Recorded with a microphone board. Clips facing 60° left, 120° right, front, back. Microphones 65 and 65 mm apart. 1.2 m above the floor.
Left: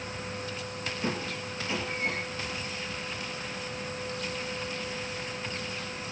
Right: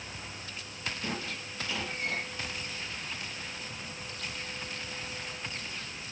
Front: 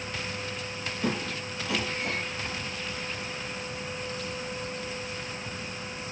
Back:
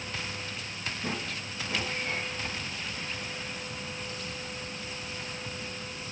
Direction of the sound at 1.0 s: Straight ahead.